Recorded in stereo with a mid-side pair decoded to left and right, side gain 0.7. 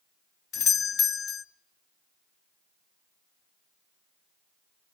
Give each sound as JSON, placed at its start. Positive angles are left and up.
{"t": 0.5, "sound": "a doorbell", "azimuth_deg": 40, "distance_m": 1.0}